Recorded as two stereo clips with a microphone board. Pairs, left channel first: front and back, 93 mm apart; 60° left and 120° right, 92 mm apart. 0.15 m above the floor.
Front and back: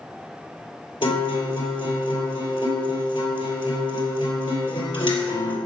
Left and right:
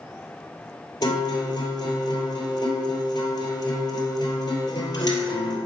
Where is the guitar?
20° left, 2.5 m.